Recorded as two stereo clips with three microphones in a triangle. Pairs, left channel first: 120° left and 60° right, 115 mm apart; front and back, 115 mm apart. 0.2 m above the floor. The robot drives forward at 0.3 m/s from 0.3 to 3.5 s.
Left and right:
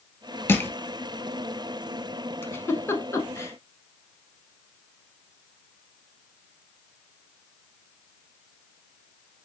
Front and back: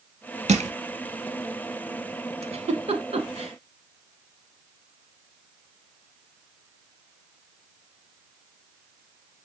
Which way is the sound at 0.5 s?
170° right.